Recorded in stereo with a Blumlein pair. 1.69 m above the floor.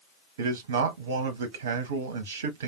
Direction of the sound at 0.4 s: 60° right.